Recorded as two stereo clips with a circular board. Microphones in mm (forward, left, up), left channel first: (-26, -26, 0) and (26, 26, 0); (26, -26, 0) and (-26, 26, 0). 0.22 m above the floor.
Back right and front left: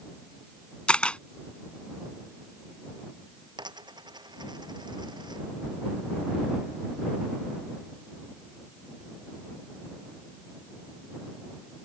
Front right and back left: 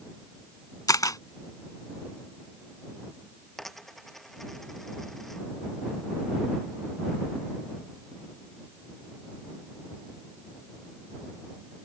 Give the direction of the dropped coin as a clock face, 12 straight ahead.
11 o'clock.